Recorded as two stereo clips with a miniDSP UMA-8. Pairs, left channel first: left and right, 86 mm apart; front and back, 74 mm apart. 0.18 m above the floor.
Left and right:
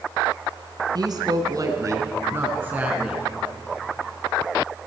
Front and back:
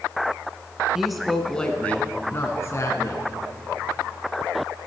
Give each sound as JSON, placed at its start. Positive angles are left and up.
{"t": 0.9, "sound": "a woman speaking", "azimuth_deg": -95, "distance_m": 1.8}